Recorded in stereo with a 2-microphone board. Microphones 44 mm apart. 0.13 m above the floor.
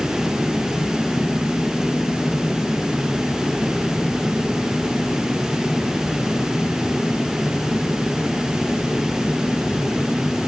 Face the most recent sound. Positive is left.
No sound to turn to.